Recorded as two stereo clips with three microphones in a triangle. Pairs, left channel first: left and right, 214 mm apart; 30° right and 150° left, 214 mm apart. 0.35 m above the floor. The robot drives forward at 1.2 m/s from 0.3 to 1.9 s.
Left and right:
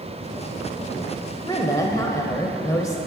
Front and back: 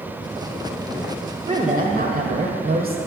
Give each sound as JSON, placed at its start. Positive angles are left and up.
{"t": 1.4, "sound": "a woman speaking", "azimuth_deg": 130, "distance_m": 1.0}